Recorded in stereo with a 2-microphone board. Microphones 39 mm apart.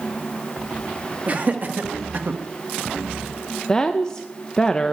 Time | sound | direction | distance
1.3 | laughter | 45° right (ahead or behind) | 1.6 m
3.7 | a woman speaking | 20° left (ahead or behind) | 0.6 m